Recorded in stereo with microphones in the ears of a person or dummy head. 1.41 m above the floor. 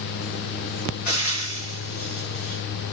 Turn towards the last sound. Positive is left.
turn(degrees=35)  # may be behind; listen again after turning